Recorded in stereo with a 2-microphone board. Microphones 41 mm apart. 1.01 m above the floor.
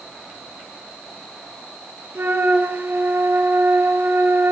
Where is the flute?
65° right (ahead or behind), 1.4 m.